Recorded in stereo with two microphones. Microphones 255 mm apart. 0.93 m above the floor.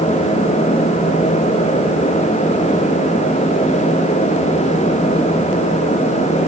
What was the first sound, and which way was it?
Only background noise.